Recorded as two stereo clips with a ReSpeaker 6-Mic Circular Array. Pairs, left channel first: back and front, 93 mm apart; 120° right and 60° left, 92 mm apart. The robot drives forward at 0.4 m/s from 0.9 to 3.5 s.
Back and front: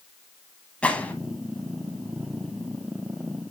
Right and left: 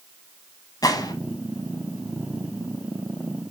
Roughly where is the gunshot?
Right.